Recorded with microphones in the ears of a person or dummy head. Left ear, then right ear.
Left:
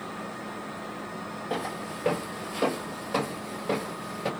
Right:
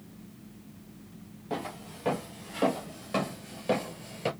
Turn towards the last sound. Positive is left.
turn(degrees=-15)  # may be behind; listen again after turning